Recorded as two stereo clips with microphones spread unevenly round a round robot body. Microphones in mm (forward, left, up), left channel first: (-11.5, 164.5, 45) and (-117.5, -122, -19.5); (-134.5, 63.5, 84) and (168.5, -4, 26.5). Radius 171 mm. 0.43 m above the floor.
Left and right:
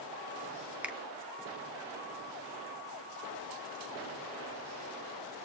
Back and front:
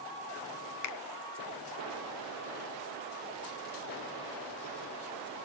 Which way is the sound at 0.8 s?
Straight behind.